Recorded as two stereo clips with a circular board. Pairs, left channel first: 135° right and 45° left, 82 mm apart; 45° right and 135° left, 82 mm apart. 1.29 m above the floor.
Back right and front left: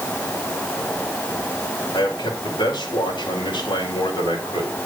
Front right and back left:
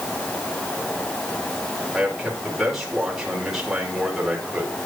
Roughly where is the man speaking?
Behind right.